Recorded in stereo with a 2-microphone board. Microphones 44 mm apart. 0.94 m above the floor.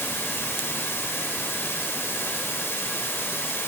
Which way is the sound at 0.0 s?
65° left (ahead or behind).